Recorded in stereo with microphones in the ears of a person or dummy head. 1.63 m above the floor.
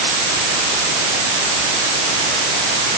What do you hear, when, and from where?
Only background noise.